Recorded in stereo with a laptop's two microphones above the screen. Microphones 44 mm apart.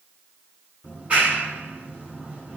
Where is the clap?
30° right (ahead or behind), 8 m.